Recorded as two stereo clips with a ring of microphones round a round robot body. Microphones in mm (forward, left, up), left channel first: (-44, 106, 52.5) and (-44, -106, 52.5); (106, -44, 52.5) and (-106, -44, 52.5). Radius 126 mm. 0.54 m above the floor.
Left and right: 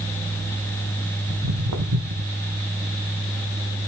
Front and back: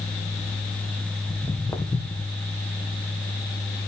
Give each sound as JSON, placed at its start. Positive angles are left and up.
{"t": 1.3, "sound": "footsteps", "azimuth_deg": -70, "distance_m": 1.9}